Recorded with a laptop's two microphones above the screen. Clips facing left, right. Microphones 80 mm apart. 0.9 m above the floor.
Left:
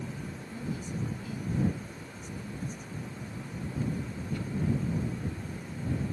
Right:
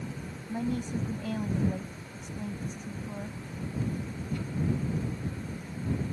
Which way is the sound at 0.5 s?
70° right (ahead or behind).